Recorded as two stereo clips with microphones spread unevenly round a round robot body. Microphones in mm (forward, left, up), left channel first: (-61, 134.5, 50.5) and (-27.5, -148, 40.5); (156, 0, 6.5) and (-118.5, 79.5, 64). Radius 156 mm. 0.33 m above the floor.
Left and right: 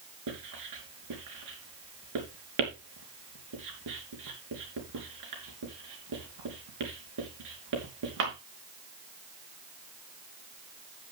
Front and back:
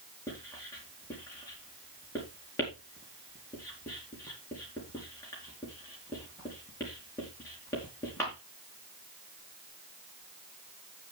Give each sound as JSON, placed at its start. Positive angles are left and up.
{"t": 0.3, "sound": "writing", "azimuth_deg": -95, "distance_m": 5.0}